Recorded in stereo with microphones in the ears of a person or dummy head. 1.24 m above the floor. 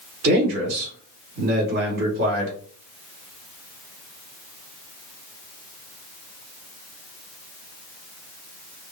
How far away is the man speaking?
About 2.5 m.